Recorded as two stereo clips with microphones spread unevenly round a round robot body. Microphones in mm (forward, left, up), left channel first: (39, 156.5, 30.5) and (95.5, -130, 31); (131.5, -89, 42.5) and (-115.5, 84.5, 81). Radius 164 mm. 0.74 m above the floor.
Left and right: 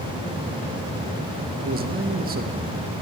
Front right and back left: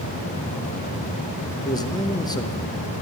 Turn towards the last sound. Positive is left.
turn(degrees=-85)